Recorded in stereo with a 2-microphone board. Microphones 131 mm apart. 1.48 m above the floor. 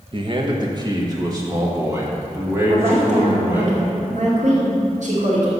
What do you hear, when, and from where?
0.1 s a man speaking: 40° right (ahead or behind), 1.2 m; by 3.7 s 20° right (ahead or behind), 3 m
2.7 s a woman speaking: 65° right (ahead or behind), 2.5 m